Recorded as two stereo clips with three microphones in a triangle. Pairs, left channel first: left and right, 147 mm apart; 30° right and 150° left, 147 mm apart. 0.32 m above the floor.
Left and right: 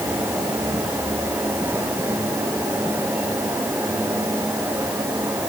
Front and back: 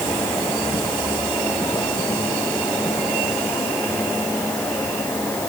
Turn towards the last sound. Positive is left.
No sound to turn to.